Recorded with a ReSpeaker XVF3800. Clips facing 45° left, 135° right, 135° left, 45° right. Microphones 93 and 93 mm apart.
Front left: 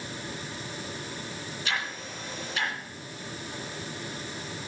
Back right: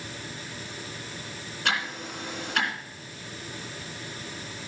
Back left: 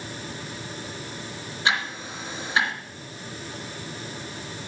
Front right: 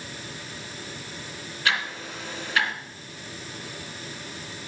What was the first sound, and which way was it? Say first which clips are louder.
Ticking: back right 5 dB, back left 1 dB; 160° right.